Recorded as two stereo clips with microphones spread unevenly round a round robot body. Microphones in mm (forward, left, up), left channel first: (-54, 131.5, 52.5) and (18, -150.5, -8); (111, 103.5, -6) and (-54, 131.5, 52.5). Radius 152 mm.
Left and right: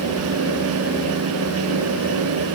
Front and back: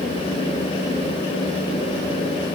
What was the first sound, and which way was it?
Only background noise.